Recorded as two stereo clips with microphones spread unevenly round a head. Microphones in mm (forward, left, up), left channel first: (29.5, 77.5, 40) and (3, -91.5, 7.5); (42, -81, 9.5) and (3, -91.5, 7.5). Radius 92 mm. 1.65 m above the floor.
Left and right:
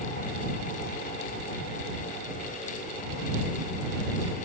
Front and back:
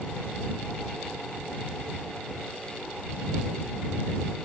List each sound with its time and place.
Only background noise.